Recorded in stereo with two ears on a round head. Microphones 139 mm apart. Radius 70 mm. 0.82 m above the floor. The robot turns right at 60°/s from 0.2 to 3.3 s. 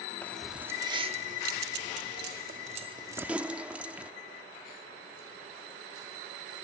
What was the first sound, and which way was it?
Keys jangling, 15° left (ahead or behind).